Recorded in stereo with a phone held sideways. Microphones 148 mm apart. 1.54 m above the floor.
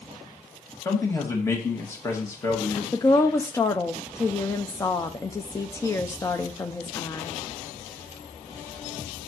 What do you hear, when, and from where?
0.8 s a man speaking: 20° left (ahead or behind), 2 m
2.9 s a woman speaking: 20° left (ahead or behind), 0.6 m